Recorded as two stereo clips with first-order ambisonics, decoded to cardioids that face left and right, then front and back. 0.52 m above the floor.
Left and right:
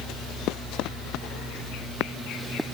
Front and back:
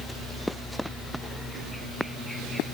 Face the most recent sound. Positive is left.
No sound to turn to.